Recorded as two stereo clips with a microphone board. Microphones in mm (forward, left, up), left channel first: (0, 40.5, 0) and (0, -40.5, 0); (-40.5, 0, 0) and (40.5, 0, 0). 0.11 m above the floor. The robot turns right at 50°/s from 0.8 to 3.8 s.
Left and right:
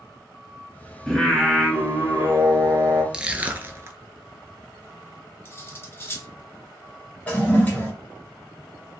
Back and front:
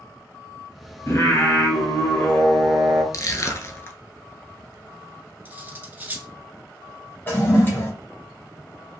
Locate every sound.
1.1 s singing: 165° left, 1.2 m; by 3.0 s 95° right, 1.2 m
3.1 s crushing: 170° right, 0.6 m; by 4.0 s 135° right, 0.6 m
5.5 s cutlery clinking: 50° left, 0.8 m
7.3 s a toilet flushing: 145° left, 1.4 m